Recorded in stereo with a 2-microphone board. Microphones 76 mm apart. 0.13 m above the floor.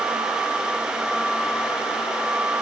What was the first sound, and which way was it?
Only background noise.